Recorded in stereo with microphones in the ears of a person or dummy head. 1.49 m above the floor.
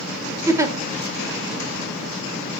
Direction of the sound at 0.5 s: 20° right (ahead or behind).